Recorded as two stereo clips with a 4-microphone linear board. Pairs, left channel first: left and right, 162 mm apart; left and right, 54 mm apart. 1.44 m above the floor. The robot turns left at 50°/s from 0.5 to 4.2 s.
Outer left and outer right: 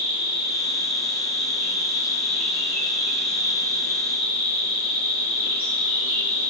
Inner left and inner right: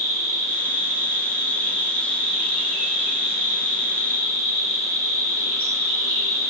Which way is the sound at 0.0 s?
100° left.